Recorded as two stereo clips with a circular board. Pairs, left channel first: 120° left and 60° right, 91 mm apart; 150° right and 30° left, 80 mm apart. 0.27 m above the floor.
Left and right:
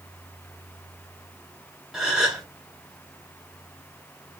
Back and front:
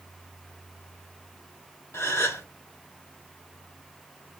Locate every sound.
1.9 s a gasp: 135° right, 1.7 m